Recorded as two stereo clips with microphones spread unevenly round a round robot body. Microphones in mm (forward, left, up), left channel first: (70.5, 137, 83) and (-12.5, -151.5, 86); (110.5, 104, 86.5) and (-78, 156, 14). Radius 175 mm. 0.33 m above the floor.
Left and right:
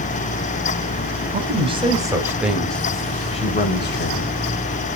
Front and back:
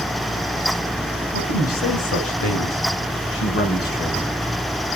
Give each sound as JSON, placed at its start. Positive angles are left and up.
{"t": 1.3, "sound": "a man speaking", "azimuth_deg": -40, "distance_m": 4.0}